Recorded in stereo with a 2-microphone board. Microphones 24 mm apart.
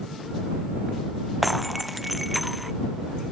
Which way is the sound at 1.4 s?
Centre (ahead or behind).